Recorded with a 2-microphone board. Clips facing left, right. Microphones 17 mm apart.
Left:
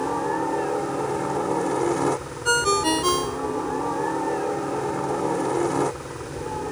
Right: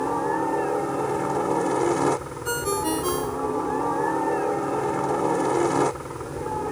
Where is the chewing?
No chewing in this recording.